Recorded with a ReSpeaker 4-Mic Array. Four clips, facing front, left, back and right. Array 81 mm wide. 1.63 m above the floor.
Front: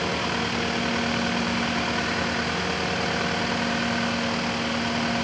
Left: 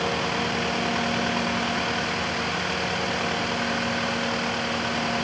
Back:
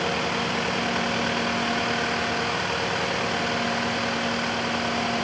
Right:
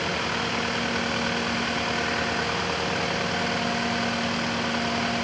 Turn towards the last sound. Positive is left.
No sound to turn to.